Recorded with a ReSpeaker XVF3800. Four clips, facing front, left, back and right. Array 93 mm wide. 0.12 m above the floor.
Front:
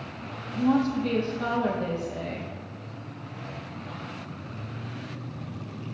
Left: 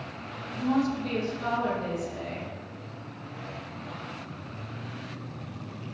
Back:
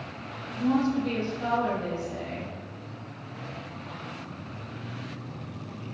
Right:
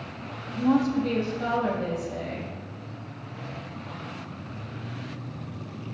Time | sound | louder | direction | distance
0.6 | a woman speaking | right 4 dB, front 1 dB | 25° right | 3 m